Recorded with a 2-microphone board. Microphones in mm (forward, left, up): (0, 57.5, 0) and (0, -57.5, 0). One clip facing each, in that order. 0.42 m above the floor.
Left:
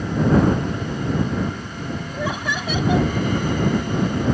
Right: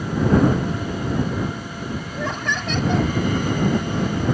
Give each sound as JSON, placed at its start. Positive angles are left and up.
{"t": 2.1, "sound": "laughter", "side_deg": 10}